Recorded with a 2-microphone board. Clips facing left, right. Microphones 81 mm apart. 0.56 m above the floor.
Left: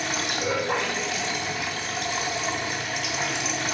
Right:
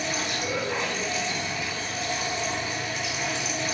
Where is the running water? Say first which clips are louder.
Left 2 dB; 65° left (ahead or behind), 0.8 m.